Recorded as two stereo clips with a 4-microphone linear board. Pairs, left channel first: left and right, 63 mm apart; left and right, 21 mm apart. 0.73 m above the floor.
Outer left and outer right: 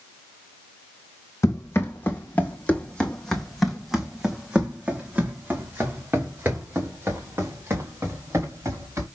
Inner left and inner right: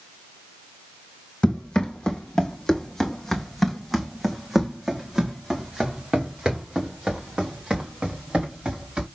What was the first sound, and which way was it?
Running footsteps, 45° left (ahead or behind).